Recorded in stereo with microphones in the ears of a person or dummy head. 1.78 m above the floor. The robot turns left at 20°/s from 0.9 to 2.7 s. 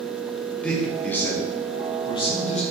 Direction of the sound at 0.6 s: 10° left (ahead or behind).